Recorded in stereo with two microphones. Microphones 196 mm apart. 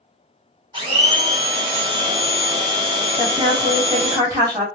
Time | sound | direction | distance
0.7 | a blender | 25° right (ahead or behind) | 0.9 m
3.2 | a woman speaking | 20° right (ahead or behind) | 1.5 m